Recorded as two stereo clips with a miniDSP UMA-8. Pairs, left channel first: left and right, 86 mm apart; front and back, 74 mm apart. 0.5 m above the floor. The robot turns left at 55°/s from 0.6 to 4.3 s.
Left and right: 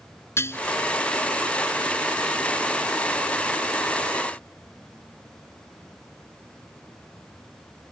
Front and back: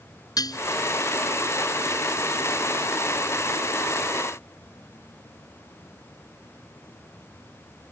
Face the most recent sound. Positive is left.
turn(degrees=-175)